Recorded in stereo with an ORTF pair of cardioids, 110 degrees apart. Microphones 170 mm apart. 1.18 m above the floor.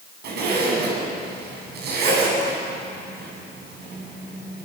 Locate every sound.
0.2 s a zipper: 65° right, 7.5 m